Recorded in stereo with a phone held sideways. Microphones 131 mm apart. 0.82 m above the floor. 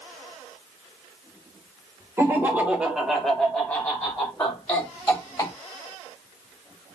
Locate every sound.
2.2 s laughter: 20° right (ahead or behind), 0.9 m; by 5.5 s 25° left (ahead or behind), 1.6 m